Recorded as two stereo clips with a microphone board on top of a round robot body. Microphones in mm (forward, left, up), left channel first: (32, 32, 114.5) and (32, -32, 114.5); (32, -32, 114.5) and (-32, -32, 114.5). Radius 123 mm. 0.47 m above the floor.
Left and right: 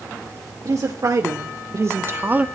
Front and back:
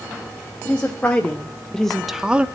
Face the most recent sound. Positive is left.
turn(degrees=-130)